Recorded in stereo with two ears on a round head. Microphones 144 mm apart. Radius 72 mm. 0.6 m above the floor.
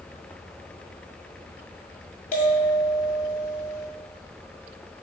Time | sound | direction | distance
2.3 | a bell | 45° left (ahead or behind) | 1.3 m